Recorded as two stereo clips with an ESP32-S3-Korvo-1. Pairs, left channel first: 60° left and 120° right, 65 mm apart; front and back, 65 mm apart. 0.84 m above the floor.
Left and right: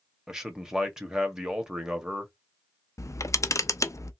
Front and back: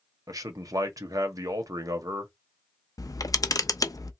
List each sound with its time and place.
0.3 s a man speaking: 160° left, 1.1 m
3.0 s a camera shutter: 25° left, 0.5 m